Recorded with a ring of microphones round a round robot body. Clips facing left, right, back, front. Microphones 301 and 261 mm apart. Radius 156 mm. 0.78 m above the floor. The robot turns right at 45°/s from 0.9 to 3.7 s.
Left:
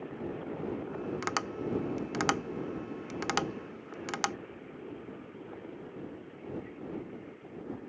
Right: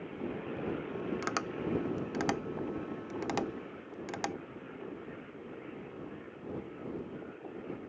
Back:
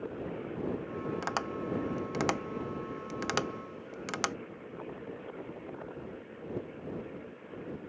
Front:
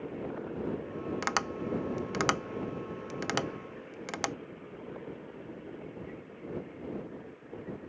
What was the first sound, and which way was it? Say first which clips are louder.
Tapping: even, front 1 dB; 5° left.